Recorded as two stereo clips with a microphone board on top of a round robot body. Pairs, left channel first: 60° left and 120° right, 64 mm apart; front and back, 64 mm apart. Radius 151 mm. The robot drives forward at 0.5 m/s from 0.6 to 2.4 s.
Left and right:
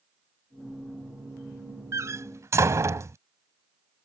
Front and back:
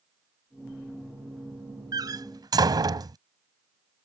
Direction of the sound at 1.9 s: 160° right.